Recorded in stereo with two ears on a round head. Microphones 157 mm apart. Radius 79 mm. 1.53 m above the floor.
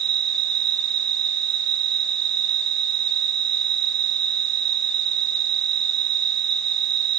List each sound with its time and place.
0.0 s an insect: 30° right (ahead or behind)